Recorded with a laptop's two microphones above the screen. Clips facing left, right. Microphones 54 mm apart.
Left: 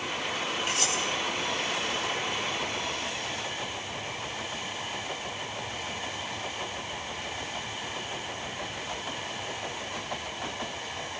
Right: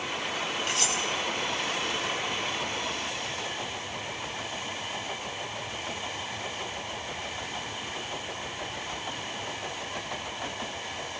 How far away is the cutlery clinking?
About 5.5 m.